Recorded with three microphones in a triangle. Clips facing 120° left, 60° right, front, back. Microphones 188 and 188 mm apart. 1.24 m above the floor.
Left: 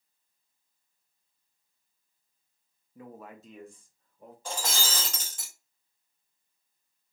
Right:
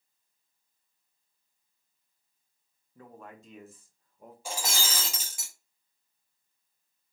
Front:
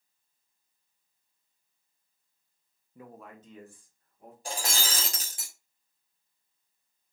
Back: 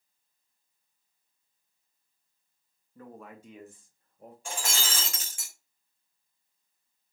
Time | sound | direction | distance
3.0 | a man speaking | 55° left | 0.6 m
4.5 | breaking glass | 15° left | 0.9 m